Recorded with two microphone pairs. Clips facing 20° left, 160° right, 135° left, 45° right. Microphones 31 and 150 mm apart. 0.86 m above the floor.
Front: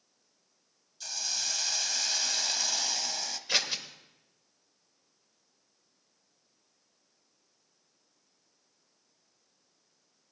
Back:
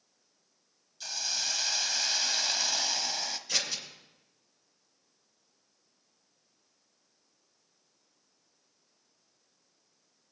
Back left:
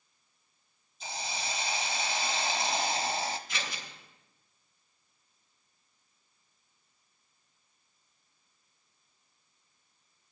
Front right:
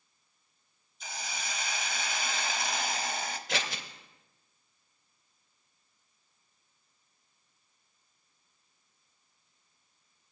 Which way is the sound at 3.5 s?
40° right.